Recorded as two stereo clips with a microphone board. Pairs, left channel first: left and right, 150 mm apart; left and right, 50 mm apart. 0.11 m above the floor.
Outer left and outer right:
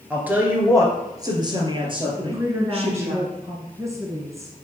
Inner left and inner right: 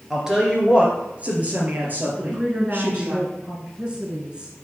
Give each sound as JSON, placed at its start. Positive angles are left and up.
{"t": 0.1, "sound": "a woman speaking", "side_deg": -10, "distance_m": 2.0}
{"t": 2.2, "sound": "a woman speaking", "side_deg": -20, "distance_m": 1.2}